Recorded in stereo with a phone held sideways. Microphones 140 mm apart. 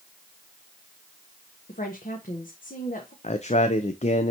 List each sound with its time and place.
1.7 s a woman speaking: 75° left (ahead or behind), 1.5 m
3.2 s a man speaking: 55° left (ahead or behind), 0.7 m